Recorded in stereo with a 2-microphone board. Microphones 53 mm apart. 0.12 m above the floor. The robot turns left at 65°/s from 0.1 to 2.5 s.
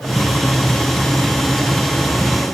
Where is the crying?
No crying in this recording.